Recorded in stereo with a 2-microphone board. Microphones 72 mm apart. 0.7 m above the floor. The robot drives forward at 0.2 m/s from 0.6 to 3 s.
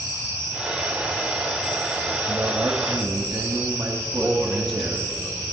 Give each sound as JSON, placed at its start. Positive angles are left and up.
{"t": 2.3, "sound": "a man speaking", "side_deg": -35, "distance_m": 1.0}
{"t": 4.1, "sound": "a man speaking", "side_deg": 5, "distance_m": 1.5}